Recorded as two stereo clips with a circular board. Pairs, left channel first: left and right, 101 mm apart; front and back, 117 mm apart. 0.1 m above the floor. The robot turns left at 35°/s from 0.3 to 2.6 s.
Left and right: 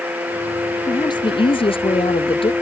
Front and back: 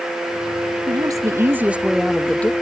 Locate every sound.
0.9 s a woman speaking: 130° left; by 2.5 s 75° left